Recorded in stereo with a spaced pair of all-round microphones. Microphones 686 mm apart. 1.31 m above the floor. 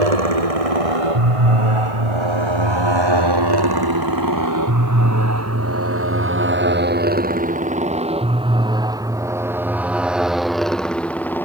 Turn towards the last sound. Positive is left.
turn(degrees=5)  # may be behind; listen again after turning